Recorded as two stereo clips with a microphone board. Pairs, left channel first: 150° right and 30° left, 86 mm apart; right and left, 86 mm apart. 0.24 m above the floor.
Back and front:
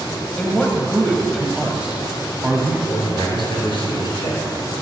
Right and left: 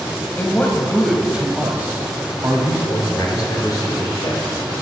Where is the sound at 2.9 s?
130° right, 4 m.